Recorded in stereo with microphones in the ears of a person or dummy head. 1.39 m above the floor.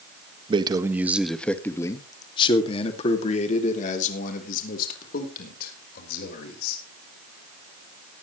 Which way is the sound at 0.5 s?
25° right (ahead or behind).